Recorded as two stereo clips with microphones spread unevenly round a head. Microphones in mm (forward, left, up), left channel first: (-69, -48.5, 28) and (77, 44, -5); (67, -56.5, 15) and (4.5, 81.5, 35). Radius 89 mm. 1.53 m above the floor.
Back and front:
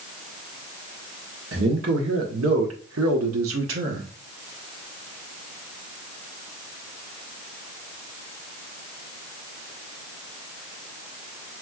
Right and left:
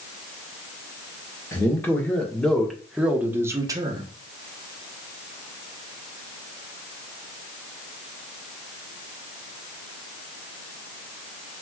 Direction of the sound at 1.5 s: 10° left.